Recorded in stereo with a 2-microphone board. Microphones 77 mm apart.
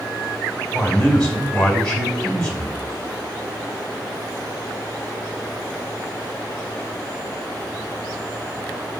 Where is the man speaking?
15° left (ahead or behind), 2 m.